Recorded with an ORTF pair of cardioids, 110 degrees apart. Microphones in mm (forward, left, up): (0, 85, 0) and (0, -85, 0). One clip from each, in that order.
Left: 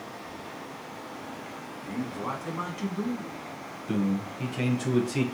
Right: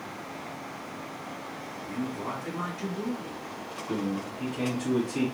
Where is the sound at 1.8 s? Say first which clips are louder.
Left 1 dB; 50° left, 1.5 m.